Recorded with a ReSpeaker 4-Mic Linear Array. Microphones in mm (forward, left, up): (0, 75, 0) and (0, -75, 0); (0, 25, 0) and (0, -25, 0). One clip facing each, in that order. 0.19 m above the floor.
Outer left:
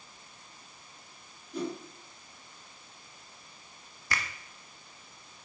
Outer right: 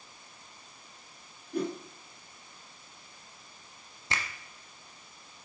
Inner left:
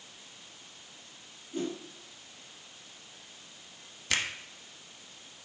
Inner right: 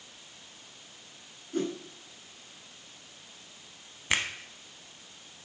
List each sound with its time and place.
1.5 s a whoosh: 55° right (ahead or behind), 2 m
4.1 s a finger snap: 25° right (ahead or behind), 0.9 m